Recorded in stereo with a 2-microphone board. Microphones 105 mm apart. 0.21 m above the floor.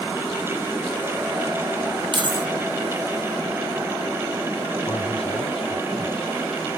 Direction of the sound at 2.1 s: 50° right (ahead or behind).